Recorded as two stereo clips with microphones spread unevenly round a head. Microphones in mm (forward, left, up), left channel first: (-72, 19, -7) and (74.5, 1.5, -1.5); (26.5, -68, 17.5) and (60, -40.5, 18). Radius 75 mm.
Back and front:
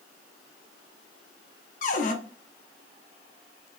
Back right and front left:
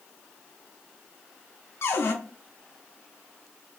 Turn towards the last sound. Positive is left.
turn(degrees=-155)